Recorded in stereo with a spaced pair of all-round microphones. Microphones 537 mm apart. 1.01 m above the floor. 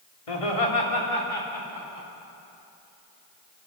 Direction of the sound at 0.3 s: 85° left.